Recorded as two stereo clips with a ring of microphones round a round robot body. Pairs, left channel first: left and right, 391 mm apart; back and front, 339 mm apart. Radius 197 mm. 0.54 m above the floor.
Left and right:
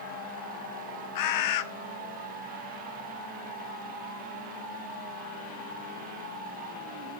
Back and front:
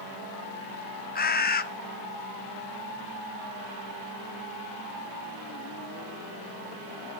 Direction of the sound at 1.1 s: 120° left.